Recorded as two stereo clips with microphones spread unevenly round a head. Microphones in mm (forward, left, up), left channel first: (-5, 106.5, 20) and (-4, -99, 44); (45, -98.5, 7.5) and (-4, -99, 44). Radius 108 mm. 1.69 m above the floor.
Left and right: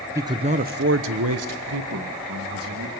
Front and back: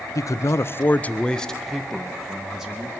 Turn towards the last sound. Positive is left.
turn(degrees=-105)